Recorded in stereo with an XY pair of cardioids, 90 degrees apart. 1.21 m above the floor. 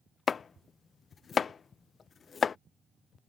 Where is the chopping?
45° left.